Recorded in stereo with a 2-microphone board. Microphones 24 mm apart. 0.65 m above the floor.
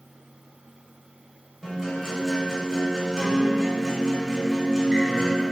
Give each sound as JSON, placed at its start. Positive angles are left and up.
{"t": 1.6, "sound": "a guitar", "side_deg": -15, "distance_m": 3.0}